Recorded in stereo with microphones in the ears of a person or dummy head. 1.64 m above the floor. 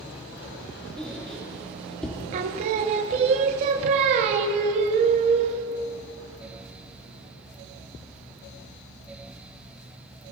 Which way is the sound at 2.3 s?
35° right (ahead or behind).